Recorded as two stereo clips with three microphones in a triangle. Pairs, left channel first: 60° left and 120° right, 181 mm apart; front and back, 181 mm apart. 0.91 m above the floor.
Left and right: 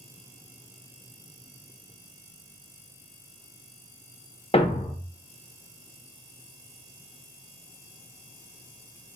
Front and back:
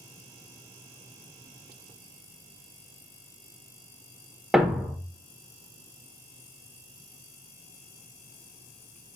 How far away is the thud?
About 0.6 m.